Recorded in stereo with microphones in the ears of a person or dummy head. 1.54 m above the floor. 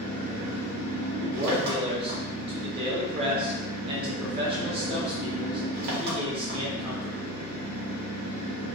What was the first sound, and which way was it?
An engine running, 55° right (ahead or behind).